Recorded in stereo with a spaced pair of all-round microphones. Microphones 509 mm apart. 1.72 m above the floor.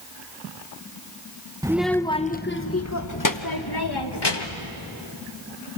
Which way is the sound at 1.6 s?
5° right (ahead or behind).